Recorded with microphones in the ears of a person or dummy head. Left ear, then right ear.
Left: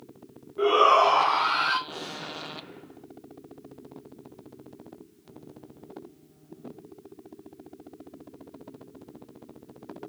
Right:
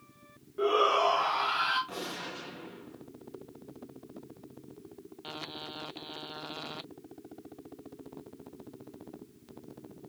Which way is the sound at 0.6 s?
10° left (ahead or behind).